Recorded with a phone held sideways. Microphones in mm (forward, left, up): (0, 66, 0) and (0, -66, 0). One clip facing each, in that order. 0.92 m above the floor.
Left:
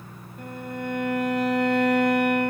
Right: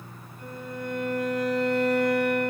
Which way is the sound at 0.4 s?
65° left (ahead or behind).